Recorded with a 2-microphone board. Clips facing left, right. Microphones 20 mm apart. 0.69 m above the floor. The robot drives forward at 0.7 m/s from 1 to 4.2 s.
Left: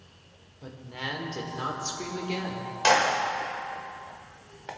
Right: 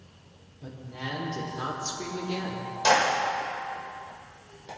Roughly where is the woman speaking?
Left.